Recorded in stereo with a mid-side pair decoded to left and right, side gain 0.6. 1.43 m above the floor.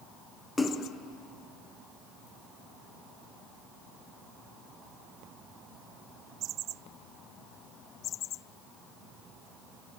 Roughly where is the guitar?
I don't hear a guitar.